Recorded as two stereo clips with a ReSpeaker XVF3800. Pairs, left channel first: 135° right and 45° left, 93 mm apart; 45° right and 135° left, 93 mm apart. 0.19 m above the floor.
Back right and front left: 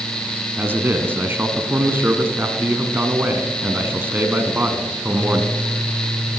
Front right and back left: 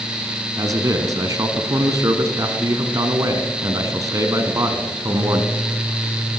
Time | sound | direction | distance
0.6 | a man speaking | 105° left | 1.6 m